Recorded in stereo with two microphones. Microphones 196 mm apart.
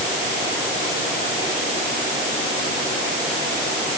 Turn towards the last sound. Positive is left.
No sound to turn to.